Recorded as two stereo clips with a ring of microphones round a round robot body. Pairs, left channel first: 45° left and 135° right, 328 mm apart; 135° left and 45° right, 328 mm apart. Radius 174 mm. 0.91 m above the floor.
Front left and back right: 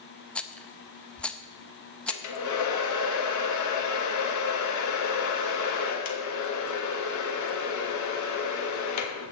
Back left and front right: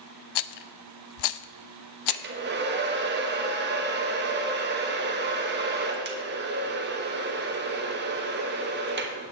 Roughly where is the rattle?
Behind left.